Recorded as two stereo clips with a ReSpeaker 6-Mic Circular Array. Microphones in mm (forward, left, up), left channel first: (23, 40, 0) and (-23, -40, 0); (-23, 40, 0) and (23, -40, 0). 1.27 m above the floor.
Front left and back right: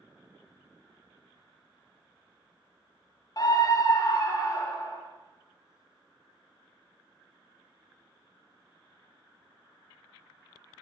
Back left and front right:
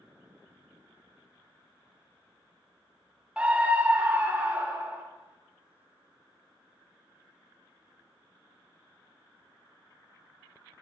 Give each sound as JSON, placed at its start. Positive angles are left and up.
{"t": 3.4, "sound": "a scream", "azimuth_deg": 15, "distance_m": 0.6}